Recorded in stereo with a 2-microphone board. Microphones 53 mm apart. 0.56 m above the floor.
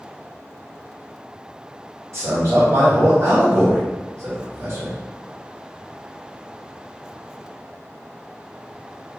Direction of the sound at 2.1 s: 60° right (ahead or behind).